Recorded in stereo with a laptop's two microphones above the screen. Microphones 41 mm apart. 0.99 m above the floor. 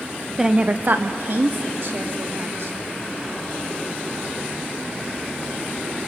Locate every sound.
0.4 s a woman speaking: 10° right (ahead or behind), 0.7 m; by 2.8 s 70° right (ahead or behind), 4 m